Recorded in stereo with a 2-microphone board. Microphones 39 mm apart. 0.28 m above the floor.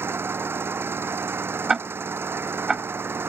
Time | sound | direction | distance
0.0 | an engine running | 85° right | ?
1.7 | ticking | 15° right (ahead or behind) | ?